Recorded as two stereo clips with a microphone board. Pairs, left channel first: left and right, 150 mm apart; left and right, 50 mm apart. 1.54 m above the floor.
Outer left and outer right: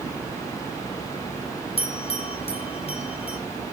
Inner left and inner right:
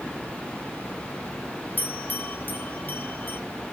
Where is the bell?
40° left (ahead or behind), 1.5 m.